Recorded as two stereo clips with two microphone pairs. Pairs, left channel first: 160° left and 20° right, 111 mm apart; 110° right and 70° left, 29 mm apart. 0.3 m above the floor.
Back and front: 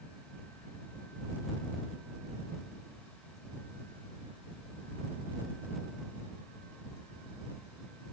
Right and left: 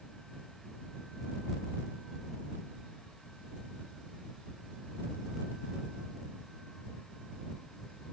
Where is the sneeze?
No sneeze in this recording.